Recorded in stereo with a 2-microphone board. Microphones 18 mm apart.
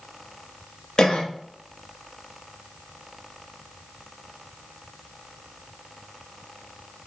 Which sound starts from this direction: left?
A cough, at 1.0 s.